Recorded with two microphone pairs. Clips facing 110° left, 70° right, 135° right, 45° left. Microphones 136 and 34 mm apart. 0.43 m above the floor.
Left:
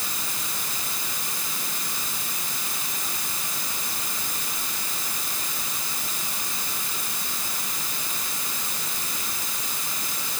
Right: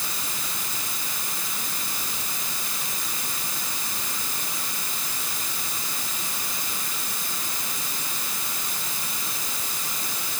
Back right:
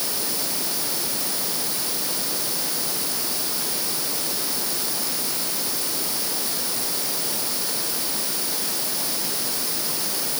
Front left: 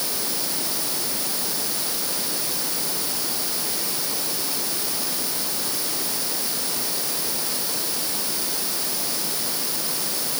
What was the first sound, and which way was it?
Only background noise.